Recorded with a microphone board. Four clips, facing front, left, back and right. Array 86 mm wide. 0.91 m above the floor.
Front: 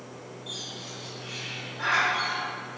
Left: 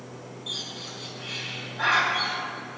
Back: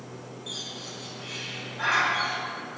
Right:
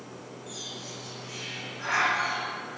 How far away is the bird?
About 2.5 m.